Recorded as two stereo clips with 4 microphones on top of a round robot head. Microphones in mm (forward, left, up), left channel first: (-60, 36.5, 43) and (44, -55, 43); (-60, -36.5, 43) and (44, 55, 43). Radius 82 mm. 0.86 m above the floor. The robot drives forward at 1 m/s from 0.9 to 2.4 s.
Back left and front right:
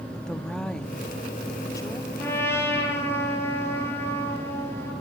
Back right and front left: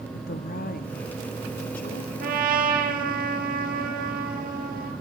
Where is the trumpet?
60° left, 5 m; by 4.9 s 65° left, 5 m.